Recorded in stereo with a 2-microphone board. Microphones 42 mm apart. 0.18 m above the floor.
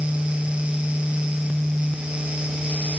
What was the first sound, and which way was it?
Only background noise.